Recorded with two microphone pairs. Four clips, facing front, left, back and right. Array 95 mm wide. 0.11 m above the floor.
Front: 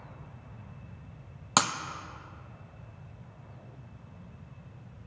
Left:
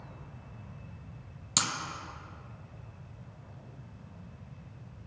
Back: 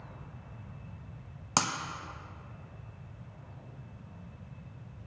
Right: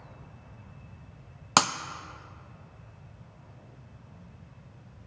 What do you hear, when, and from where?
1.6 s breaking glass: 80° right, 0.6 m